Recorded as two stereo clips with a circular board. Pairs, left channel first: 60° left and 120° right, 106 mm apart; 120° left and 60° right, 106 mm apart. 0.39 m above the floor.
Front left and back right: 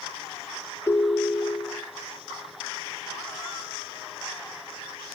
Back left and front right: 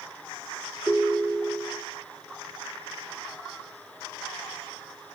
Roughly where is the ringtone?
Ahead.